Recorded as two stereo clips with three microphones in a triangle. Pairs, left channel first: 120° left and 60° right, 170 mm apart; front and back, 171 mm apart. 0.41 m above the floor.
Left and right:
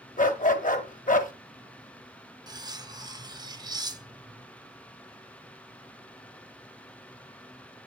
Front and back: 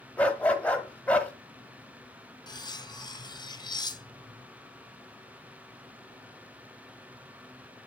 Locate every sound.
0.2 s a dog barking: 80° left, 0.9 m
2.5 s cutlery clinking: 30° right, 0.5 m